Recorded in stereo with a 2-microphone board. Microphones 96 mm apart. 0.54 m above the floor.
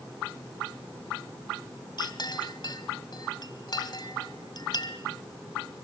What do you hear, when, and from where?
2.0 s a clink: 50° left (ahead or behind), 2.0 m